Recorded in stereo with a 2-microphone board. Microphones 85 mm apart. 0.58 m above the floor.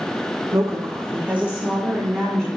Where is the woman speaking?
40° right (ahead or behind), 1.5 m; by 2.5 s 5° left (ahead or behind), 2 m.